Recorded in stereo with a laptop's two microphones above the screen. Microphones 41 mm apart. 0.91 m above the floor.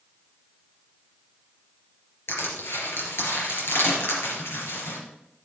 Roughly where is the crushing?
Left.